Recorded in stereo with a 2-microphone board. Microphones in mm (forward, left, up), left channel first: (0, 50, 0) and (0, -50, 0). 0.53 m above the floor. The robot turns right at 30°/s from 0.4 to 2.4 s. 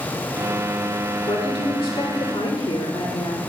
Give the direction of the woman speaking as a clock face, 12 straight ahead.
9 o'clock.